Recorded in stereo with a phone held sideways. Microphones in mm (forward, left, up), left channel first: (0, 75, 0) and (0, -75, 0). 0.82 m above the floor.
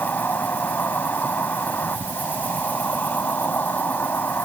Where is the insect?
10° left (ahead or behind).